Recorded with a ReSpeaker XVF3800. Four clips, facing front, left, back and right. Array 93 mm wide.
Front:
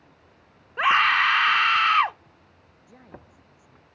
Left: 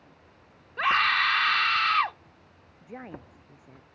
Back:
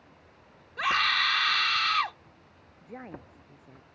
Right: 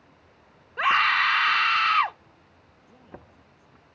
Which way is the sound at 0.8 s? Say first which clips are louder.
Right 2 dB, front 7 dB; 15° right.